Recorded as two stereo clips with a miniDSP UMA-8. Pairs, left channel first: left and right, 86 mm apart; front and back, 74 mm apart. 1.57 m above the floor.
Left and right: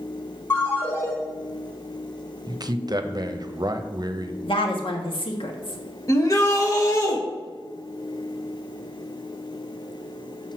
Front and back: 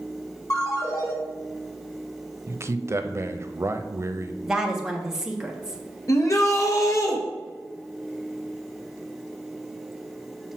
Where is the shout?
40° left, 1.7 m.